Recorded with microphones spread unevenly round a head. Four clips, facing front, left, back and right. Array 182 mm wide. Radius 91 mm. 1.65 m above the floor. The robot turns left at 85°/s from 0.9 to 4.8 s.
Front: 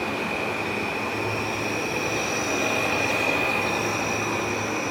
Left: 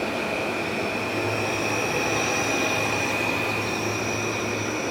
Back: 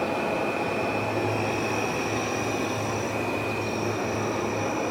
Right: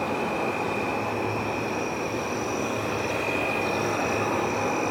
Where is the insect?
170° right, 1.7 m; by 4.9 s 140° right, 1.7 m.